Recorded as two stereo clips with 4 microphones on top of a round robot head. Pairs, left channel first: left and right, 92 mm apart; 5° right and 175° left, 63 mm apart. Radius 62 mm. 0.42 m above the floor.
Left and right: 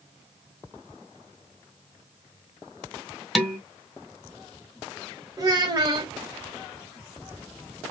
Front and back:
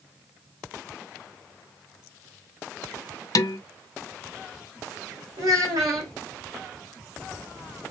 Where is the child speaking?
145° right, 1.6 m.